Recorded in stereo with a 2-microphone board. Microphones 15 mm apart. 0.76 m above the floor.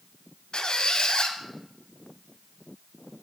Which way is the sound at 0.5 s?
65° left (ahead or behind).